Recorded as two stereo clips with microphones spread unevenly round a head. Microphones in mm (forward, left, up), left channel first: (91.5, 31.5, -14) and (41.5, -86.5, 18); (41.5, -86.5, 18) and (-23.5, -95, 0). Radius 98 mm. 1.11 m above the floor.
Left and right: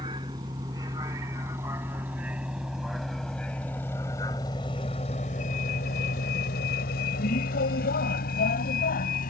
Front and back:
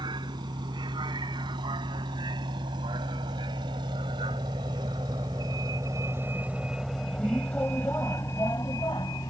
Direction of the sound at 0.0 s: Straight behind.